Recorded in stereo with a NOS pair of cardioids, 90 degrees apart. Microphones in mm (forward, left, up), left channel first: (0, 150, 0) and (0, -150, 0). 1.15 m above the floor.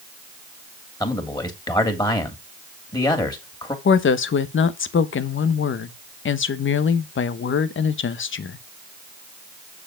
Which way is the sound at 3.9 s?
40° left.